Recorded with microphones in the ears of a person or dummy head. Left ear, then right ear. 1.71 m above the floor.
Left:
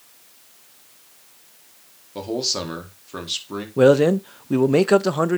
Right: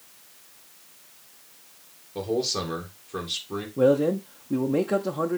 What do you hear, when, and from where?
2.1 s a man speaking: 25° left (ahead or behind), 1.9 m
3.8 s a man speaking: 65° left (ahead or behind), 0.6 m